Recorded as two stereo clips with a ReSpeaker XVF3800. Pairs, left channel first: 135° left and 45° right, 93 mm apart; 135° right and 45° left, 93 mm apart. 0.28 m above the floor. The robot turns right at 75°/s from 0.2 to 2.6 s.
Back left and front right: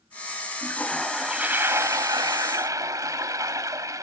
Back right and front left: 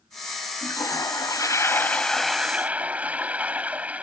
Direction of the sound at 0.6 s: 170° right.